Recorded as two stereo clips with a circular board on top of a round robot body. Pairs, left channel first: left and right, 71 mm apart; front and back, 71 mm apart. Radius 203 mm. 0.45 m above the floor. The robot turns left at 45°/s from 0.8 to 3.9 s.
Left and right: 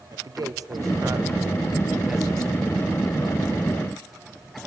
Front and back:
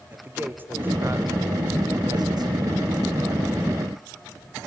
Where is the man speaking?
120° right, 2.5 m; by 3.6 s 115° left, 2.5 m.